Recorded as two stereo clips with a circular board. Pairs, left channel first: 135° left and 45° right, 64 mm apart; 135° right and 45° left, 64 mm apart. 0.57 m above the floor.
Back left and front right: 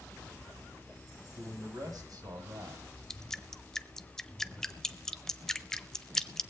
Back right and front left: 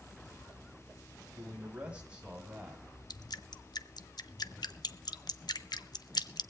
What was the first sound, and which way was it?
A man speaking, 30° right.